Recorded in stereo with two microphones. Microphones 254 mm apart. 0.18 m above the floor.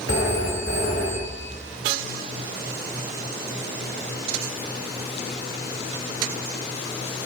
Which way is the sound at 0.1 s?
60° left (ahead or behind).